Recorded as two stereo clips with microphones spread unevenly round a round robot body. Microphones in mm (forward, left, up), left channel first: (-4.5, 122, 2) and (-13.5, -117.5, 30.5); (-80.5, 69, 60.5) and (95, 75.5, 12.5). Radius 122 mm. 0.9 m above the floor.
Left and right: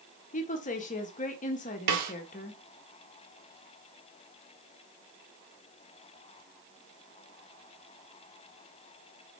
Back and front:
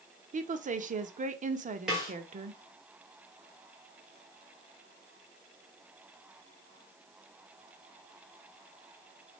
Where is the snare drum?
90° right, 1.0 m.